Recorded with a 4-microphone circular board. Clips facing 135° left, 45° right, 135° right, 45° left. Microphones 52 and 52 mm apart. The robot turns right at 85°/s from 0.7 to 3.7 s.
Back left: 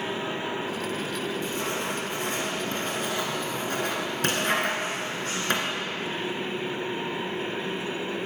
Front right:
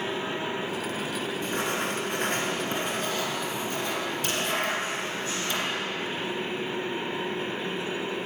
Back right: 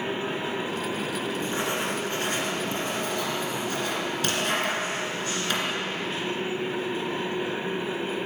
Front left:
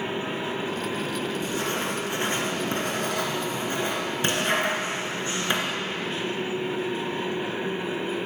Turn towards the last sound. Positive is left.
turn(degrees=105)